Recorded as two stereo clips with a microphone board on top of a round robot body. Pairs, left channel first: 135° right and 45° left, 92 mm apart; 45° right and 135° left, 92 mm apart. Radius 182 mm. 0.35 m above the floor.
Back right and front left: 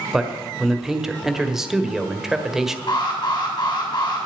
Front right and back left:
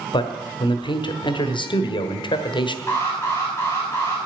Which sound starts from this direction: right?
An alarm, at 2.9 s.